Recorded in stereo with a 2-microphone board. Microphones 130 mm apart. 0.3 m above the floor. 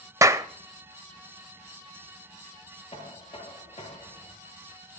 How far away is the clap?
About 0.7 m.